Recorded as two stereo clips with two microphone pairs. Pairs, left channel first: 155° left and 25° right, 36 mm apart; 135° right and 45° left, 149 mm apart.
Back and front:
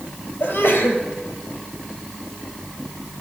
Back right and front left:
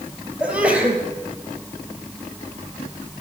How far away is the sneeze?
About 3.5 m.